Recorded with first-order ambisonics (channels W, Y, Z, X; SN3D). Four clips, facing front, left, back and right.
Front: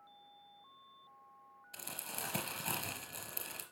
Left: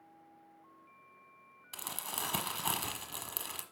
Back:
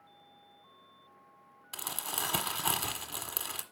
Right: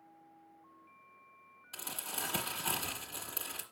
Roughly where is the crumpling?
Behind.